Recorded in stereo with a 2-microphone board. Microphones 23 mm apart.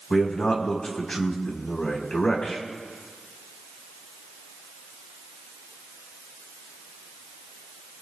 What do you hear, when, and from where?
0.1 s a man speaking: 45° left (ahead or behind), 5 m